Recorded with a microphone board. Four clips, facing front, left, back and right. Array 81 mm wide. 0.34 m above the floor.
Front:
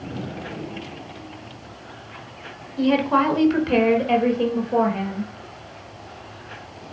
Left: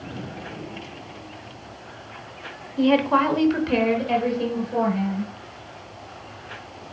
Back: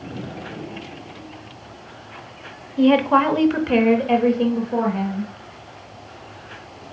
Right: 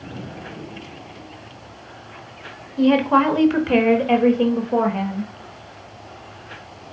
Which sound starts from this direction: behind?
A woman speaking, at 2.8 s.